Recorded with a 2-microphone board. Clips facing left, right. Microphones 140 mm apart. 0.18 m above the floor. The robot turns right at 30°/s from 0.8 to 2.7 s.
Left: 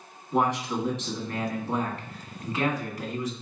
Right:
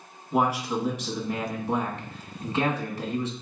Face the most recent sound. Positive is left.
turn(degrees=-105)